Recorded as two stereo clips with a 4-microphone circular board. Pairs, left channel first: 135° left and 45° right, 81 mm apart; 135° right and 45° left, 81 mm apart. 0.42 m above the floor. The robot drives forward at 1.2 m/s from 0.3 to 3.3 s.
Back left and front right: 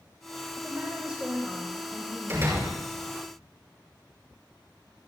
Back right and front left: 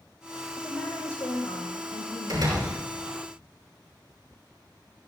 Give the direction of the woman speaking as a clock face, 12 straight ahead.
3 o'clock.